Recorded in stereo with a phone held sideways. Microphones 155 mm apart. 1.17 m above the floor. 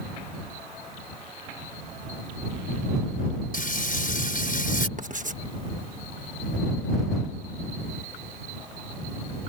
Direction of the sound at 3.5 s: 65° left (ahead or behind).